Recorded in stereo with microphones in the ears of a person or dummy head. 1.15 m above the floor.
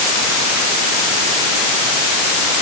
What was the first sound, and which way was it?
Only background noise.